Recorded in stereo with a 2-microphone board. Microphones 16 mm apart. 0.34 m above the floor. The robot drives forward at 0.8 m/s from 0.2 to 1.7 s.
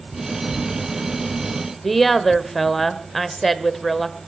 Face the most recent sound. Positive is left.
turn(degrees=5)  # may be behind; listen again after turning